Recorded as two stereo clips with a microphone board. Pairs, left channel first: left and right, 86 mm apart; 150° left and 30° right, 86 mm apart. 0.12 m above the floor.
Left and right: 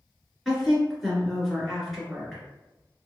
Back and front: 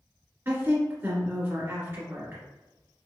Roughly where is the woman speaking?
Ahead.